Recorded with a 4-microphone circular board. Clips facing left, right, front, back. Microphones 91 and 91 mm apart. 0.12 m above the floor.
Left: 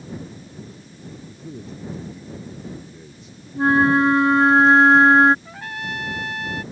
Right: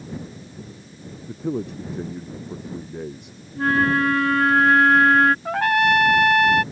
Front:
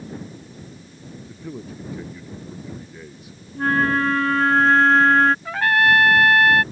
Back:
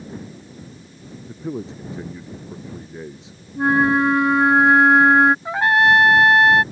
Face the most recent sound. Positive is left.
turn(degrees=-110)